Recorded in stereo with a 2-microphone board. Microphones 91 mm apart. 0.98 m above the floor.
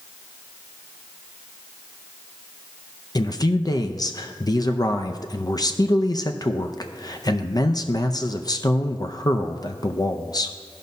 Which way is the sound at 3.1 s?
45° left (ahead or behind).